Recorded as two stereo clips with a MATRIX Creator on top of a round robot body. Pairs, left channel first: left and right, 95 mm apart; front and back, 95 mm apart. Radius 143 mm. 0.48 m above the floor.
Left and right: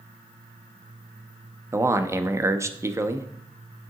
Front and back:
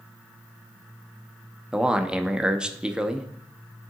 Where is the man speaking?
105° right, 0.7 m.